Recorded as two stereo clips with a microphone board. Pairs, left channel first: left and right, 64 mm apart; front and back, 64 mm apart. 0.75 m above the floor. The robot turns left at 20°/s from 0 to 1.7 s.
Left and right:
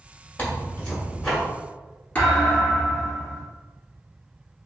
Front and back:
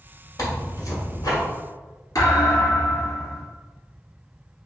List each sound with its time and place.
0.4 s tearing paper: 30° left, 1.4 m; by 1.4 s 10° left, 1.4 m
2.1 s a thud: 25° left, 1.7 m